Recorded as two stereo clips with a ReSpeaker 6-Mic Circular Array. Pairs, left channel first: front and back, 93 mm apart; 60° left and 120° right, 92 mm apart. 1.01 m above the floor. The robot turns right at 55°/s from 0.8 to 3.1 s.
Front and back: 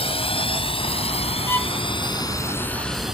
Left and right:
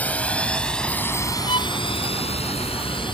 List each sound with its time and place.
0.0 s a drone: 15° right; by 3.1 s 95° left
1.5 s a violin: 65° left; by 1.7 s 80° left